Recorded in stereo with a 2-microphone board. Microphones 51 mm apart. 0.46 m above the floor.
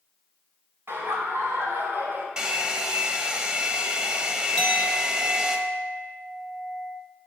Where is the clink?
Centre (ahead or behind), 1.4 m.